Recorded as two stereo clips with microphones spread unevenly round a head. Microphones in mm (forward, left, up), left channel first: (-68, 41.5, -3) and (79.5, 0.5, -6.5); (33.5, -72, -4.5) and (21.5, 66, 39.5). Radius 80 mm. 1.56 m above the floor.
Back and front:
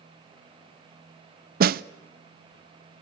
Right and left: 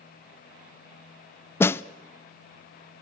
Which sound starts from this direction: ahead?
A snare drum, at 1.6 s.